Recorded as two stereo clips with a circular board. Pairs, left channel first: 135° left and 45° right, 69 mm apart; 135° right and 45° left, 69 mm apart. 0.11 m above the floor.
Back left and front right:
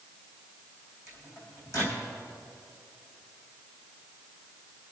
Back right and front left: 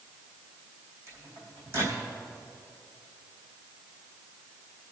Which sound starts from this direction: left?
A microwave, at 1.1 s.